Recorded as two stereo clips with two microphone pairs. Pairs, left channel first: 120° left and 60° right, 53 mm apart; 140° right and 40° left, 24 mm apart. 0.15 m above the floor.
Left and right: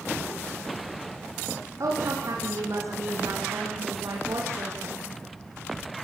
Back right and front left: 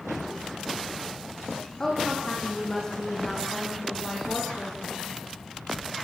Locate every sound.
1.8 s a woman speaking: 65° right, 8.5 m; by 5.0 s 80° right, 9 m